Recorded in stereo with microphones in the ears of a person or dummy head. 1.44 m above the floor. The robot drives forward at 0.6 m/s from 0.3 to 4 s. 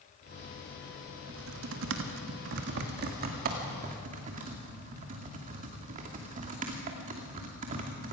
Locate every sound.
1.3 s typing on a keyboard: 75° right (ahead or behind), 1.6 m; by 8.1 s 40° right (ahead or behind), 2.5 m